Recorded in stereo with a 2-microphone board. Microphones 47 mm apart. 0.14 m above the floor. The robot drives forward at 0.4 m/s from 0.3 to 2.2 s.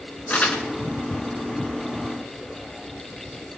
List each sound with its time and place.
0.3 s crumpling: 35° left (ahead or behind), 1.8 m